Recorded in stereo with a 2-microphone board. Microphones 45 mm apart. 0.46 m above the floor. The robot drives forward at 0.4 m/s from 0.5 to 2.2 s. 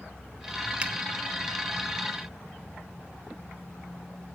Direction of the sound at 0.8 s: 20° right (ahead or behind).